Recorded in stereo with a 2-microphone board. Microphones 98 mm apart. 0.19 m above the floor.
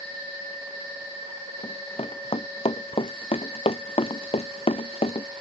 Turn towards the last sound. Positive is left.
turn(degrees=80)